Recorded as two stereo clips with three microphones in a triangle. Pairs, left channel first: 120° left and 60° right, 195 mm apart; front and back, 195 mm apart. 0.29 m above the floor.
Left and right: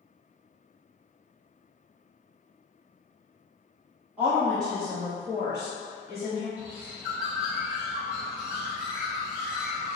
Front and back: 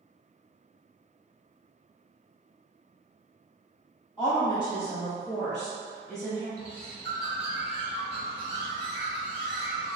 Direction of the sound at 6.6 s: 145° right.